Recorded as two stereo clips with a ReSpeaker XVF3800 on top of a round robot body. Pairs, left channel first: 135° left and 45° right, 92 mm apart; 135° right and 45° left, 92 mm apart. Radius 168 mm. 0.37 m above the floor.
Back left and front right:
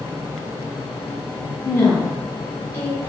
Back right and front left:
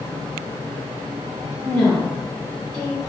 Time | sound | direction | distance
1.6 | a woman speaking | 155° left | 1.3 m